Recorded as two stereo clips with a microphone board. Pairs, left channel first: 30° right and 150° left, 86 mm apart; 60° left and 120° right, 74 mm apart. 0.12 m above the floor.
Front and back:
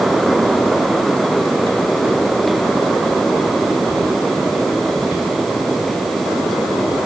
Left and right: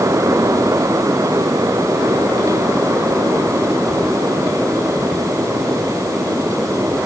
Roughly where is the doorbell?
I don't hear a doorbell.